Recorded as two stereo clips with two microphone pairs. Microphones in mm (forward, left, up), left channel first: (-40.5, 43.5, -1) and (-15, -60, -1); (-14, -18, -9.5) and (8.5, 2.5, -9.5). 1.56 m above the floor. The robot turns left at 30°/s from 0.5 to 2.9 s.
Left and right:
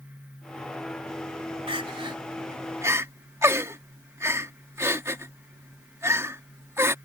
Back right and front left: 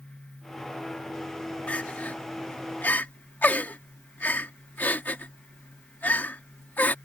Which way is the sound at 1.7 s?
105° right.